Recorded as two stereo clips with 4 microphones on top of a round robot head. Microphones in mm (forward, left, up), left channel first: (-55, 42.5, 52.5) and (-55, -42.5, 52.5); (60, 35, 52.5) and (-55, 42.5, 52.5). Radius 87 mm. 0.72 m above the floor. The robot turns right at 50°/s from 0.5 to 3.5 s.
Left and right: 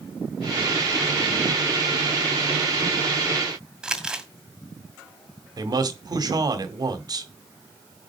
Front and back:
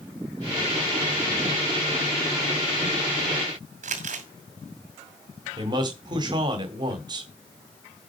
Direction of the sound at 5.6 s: 130° right.